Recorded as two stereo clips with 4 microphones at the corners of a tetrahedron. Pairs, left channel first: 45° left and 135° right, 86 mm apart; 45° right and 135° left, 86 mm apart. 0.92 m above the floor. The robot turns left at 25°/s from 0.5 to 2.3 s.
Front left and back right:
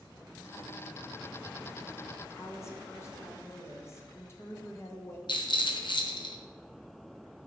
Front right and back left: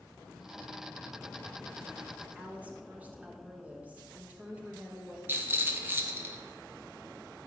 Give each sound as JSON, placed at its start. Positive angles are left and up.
{"t": 2.4, "sound": "a woman speaking", "azimuth_deg": 75, "distance_m": 0.8}
{"t": 5.3, "sound": "a rattle", "azimuth_deg": 70, "distance_m": 0.6}